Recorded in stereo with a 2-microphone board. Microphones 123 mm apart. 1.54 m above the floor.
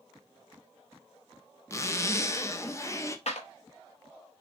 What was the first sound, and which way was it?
A zipper, 25° left (ahead or behind).